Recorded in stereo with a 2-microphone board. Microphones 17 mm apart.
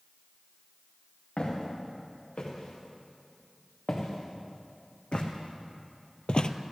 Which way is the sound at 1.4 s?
80° left.